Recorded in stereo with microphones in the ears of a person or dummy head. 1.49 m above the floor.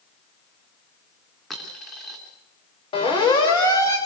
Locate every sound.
1.5 s a dropped coin: 5° right (ahead or behind), 4.5 m
2.9 s a siren: 20° left (ahead or behind), 4.5 m; by 4.0 s 10° left (ahead or behind), 4.5 m